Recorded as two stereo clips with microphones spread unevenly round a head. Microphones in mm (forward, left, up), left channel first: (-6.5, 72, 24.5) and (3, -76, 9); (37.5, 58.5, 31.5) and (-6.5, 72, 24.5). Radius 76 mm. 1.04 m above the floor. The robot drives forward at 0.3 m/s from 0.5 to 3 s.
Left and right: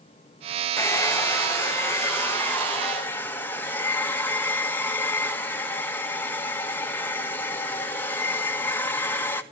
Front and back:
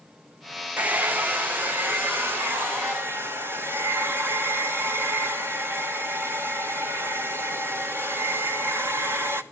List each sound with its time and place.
0.8 s a hair dryer: 165° left, 1.0 m; by 9.4 s 175° left, 1.6 m